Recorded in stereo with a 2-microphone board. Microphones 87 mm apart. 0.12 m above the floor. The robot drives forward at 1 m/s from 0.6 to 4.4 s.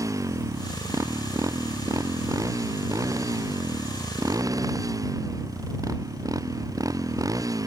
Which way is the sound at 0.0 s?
35° right (ahead or behind).